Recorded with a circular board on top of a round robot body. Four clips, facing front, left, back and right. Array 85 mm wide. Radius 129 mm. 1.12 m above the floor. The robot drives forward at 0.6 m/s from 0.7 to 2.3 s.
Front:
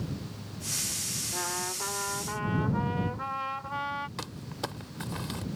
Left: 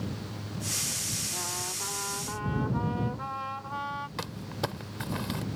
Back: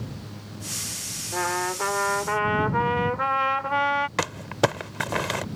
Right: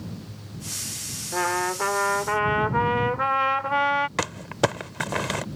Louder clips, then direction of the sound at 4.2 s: Right 10 dB, back 14 dB; 140° right.